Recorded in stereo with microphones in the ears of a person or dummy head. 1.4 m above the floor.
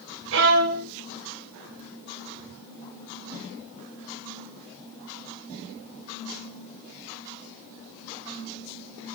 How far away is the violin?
About 1.3 m.